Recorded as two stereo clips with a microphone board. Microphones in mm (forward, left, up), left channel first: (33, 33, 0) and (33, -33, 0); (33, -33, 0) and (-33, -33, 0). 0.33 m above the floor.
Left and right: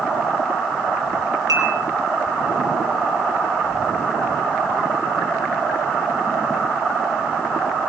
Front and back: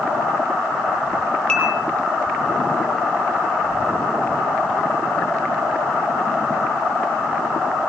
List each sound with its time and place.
1.5 s dishes clattering: 70° right, 4.5 m